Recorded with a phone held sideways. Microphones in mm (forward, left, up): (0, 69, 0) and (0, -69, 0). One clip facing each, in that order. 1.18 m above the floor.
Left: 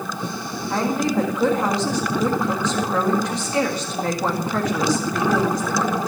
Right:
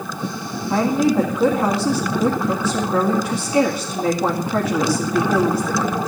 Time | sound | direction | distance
0.7 | a woman speaking | 5° right (ahead or behind) | 1.9 m